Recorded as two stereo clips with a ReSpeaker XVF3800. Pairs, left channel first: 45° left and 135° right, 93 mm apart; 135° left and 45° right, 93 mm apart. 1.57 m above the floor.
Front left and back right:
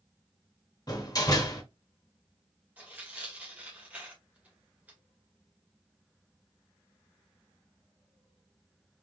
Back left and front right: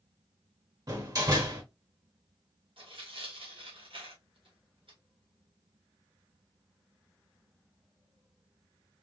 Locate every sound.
0.9 s a door slam: straight ahead, 1.6 m
2.8 s tearing paper: 60° right, 1.8 m